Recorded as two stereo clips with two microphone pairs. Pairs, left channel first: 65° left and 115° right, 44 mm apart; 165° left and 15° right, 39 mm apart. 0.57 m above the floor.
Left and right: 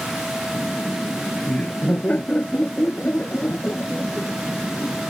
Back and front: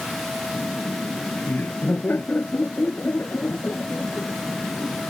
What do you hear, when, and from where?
0.5 s laughter: 125° left